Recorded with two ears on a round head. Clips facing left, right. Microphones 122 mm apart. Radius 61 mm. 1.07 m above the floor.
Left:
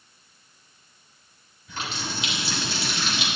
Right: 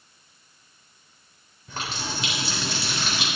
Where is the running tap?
40° right (ahead or behind), 3 m.